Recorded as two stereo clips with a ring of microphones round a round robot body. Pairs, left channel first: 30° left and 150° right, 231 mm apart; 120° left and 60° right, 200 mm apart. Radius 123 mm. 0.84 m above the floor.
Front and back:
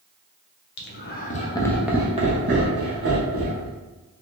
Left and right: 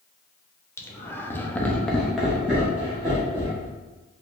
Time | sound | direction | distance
0.8 | laughter | 45° left | 1.0 m